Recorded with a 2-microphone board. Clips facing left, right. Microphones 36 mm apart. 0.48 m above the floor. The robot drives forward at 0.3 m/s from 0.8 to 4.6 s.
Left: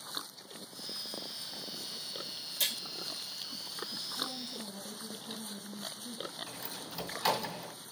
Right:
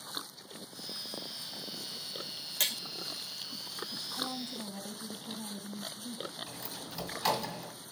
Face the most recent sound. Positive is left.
turn(degrees=0)  # may be behind; listen again after turning